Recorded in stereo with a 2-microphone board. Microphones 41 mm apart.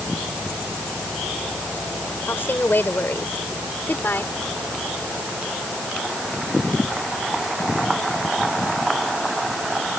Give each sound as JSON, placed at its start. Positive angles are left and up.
{"t": 2.3, "sound": "a woman speaking", "side_deg": 60}